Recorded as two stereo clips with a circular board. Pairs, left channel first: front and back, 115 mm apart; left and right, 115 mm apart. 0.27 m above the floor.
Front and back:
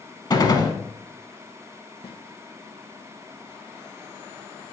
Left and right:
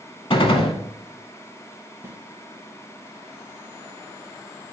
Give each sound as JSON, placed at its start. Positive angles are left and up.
{"t": 0.3, "sound": "a gunshot", "azimuth_deg": 50, "distance_m": 0.6}
{"t": 2.0, "sound": "a snare drum", "azimuth_deg": -25, "distance_m": 0.7}